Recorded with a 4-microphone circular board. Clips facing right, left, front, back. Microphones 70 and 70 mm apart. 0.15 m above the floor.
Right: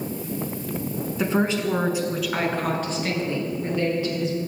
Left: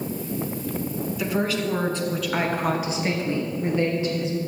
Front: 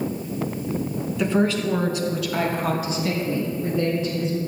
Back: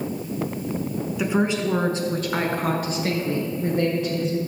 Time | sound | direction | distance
1.2 | a woman speaking | 105° right | 1.6 m